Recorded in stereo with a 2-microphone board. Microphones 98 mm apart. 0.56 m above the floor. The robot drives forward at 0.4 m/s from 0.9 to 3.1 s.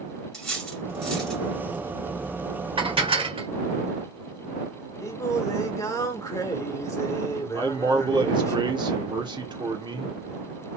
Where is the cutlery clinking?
5° left (ahead or behind), 1.7 m.